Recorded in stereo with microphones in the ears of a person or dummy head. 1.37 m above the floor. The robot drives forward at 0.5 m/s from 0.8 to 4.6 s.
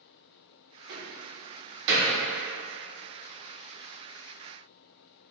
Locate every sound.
0.9 s a door slam: 55° right (ahead or behind), 1.3 m; by 2.2 s 65° right (ahead or behind), 1.2 m